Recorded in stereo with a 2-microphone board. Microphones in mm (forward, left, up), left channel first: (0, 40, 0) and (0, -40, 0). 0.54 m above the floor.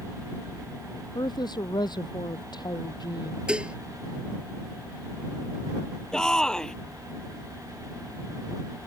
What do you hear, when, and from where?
1.1 s a woman speaking: 75° left (ahead or behind)
3.5 s dishes clattering: 15° right (ahead or behind)
6.1 s a shout: 10° left (ahead or behind)